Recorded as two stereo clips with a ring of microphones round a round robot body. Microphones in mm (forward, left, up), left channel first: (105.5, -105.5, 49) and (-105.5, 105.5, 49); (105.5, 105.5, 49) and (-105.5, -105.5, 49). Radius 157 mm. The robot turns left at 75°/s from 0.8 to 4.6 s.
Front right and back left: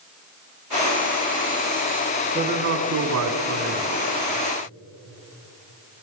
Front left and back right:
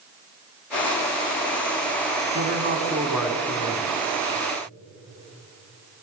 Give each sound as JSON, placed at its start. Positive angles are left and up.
{"t": 2.4, "sound": "a man speaking", "azimuth_deg": -155, "distance_m": 1.9}